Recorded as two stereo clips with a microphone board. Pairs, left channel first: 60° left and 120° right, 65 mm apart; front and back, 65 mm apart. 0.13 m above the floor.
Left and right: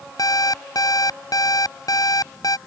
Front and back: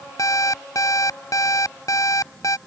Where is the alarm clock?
35° left.